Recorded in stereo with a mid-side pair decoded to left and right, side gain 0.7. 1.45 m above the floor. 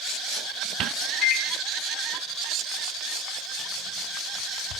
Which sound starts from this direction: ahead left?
A microwave, at 1.2 s.